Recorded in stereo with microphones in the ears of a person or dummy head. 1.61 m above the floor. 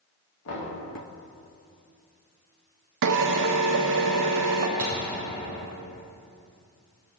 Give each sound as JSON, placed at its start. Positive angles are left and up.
{"t": 0.5, "sound": "knocking", "side_deg": 70, "distance_m": 3.0}
{"t": 3.0, "sound": "a drill", "side_deg": -65, "distance_m": 0.8}
{"t": 4.8, "sound": "a thud", "side_deg": -5, "distance_m": 3.5}